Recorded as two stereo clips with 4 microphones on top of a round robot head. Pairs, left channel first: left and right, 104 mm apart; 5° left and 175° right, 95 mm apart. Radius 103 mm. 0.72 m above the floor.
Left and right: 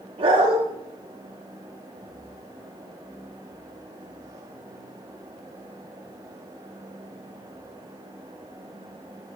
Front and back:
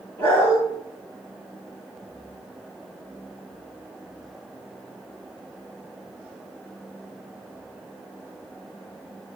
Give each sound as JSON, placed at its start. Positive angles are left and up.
{"t": 0.2, "sound": "a dog barking", "azimuth_deg": -70, "distance_m": 7.0}